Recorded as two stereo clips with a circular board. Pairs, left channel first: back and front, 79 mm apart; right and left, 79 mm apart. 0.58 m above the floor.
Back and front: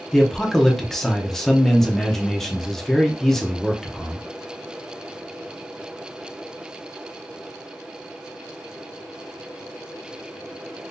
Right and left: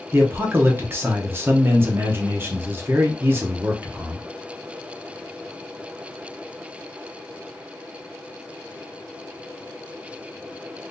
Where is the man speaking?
100° left, 0.7 m.